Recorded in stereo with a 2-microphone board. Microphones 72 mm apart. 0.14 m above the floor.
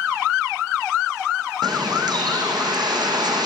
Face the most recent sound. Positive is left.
turn(degrees=-65)  # may be behind; listen again after turning